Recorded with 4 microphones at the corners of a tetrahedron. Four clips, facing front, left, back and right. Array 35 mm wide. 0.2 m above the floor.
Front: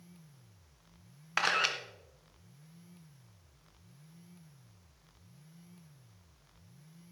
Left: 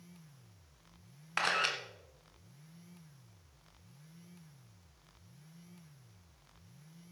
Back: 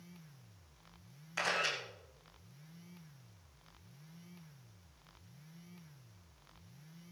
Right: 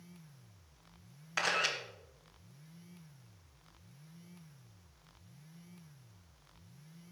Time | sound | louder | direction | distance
1.4 | a camera shutter | left 1 dB, front 5 dB | 15° left | 1.9 m